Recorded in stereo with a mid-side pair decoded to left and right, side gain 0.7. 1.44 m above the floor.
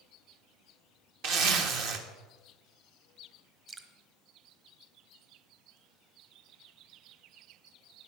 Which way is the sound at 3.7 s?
35° right.